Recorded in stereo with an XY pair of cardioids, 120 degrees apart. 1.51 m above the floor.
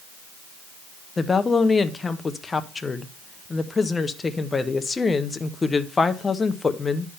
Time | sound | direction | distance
1.2 | a woman speaking | 20° left | 0.8 m